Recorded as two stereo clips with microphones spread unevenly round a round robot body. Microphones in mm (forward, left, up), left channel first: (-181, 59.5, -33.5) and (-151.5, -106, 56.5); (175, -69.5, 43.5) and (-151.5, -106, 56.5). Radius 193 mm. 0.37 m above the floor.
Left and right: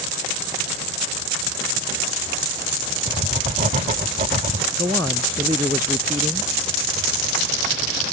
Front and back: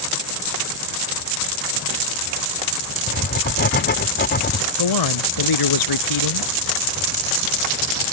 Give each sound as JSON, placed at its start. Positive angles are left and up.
{"t": 3.1, "sound": "writing", "azimuth_deg": -5}
{"t": 4.8, "sound": "a man speaking", "azimuth_deg": -5}